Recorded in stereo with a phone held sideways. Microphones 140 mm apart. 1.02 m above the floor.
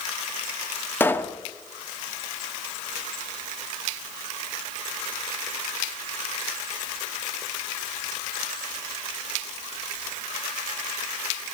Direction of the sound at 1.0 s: 15° left (ahead or behind).